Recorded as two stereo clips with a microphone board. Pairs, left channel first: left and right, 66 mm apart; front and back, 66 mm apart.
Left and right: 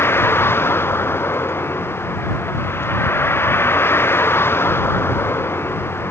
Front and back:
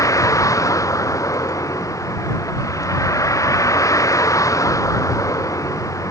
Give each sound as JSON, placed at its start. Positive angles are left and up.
{"t": 0.0, "sound": "a vehicle", "azimuth_deg": 35}